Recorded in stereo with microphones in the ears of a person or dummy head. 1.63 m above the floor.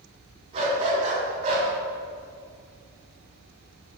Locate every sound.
0.5 s a dog barking: 30° right (ahead or behind), 3.5 m; by 1.7 s 45° right (ahead or behind), 2.5 m